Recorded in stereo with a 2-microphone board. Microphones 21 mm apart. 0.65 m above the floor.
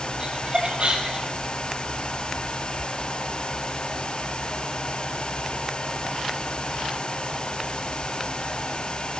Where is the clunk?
No clunk in this recording.